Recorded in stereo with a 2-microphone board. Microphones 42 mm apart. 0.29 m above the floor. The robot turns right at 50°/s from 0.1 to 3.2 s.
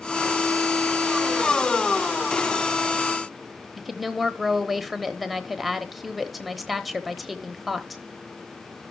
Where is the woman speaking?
Centre (ahead or behind), 0.9 m.